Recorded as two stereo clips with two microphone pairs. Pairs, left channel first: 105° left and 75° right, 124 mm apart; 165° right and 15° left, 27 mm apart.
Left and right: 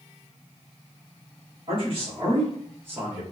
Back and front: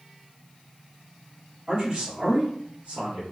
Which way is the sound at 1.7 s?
30° right.